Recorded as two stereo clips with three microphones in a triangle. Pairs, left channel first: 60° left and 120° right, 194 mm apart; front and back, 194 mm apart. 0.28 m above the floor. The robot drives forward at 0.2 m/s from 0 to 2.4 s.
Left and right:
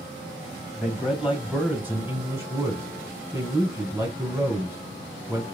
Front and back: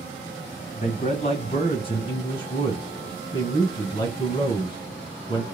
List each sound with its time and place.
0.8 s a man speaking: 35° right, 1.4 m; by 5.5 s 50° right, 1.3 m